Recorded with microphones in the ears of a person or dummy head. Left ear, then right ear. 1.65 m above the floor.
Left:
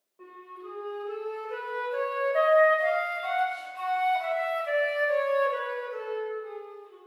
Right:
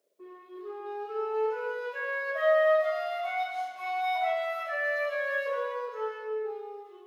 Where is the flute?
65° left (ahead or behind), 1.8 m.